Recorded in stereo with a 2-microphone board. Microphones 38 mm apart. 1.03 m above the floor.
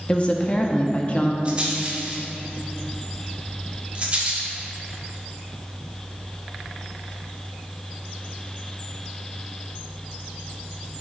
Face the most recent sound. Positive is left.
turn(degrees=-30)  # may be behind; listen again after turning